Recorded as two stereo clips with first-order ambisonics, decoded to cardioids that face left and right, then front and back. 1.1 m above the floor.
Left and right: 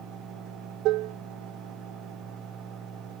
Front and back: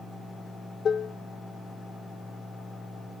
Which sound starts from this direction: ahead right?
Dishes clattering, at 0.8 s.